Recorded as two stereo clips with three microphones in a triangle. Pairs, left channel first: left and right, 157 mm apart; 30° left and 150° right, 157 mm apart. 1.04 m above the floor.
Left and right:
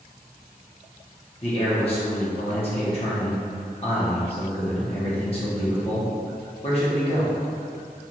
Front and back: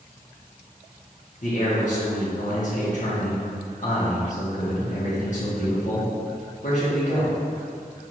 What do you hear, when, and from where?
1.4 s a man speaking: 50° left, 1.3 m